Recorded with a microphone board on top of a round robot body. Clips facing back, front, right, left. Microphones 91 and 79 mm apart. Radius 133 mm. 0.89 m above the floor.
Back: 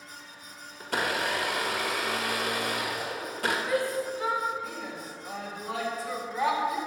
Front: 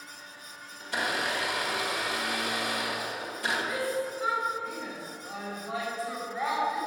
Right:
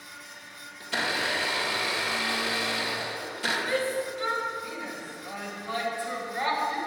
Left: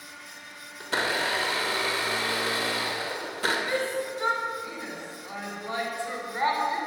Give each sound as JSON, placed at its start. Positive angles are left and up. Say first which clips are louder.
{"t": 0.8, "sound": "a blender", "louder": "back 2 dB, left 2 dB", "azimuth_deg": 140, "distance_m": 1.7}
{"t": 3.7, "sound": "a shout", "louder": "back 2 dB, even", "azimuth_deg": 155, "distance_m": 3.0}